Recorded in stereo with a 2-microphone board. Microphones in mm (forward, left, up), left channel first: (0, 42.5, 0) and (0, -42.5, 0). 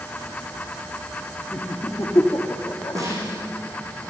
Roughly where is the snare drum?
Right.